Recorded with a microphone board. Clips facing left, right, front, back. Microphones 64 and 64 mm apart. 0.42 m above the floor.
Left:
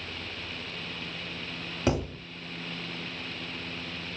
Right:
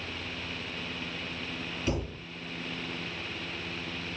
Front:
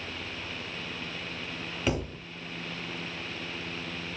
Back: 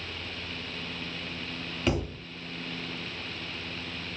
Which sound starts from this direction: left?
A thud, at 1.9 s.